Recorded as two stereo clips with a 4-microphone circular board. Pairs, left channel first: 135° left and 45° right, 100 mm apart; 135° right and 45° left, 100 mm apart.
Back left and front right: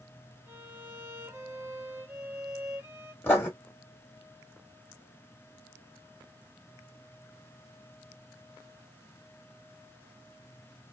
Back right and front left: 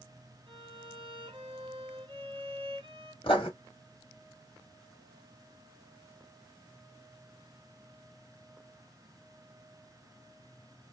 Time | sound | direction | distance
0.5 | a violin | 20° left | 1.9 m
3.2 | writing | 155° right | 1.8 m